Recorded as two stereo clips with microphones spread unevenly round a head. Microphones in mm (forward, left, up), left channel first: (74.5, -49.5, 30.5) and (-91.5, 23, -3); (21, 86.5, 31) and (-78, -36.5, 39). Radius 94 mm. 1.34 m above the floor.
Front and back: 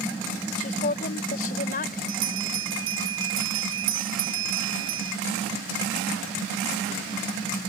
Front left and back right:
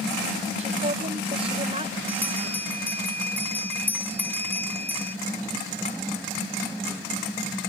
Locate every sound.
0.6 s a woman speaking: 70° right; by 2.0 s 65° right
2.1 s a bell: 130° left